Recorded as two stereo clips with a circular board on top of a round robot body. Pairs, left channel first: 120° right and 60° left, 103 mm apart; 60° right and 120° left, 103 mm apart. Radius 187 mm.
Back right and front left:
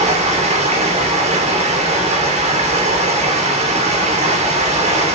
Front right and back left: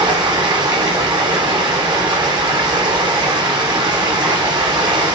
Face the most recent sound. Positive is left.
turn(degrees=70)